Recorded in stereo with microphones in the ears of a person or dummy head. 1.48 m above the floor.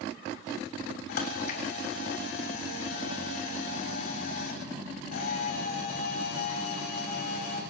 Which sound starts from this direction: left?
A camera shutter, at 1.1 s.